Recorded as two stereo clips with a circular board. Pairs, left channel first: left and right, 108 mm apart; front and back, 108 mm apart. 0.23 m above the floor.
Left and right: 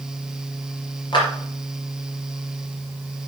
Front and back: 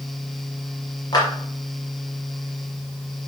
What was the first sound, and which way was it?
A clap, 50° left.